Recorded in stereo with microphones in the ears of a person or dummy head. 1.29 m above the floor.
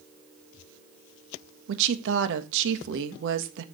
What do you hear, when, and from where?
1.7 s a woman speaking: 65° right (ahead or behind), 1.4 m